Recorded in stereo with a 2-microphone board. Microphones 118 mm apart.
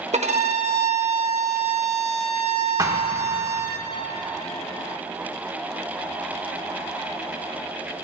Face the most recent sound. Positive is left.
turn(degrees=-25)  # may be behind; listen again after turning